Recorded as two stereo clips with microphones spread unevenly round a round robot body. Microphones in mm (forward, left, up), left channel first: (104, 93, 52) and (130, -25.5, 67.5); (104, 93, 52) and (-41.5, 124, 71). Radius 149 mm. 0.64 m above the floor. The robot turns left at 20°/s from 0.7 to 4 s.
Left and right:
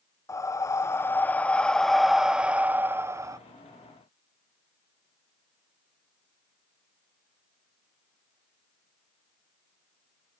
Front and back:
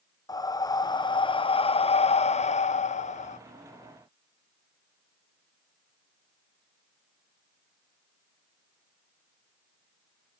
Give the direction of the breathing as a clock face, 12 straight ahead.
11 o'clock.